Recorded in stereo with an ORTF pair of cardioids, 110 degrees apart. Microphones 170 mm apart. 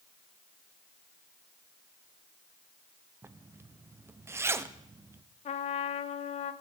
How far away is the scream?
No scream in this recording.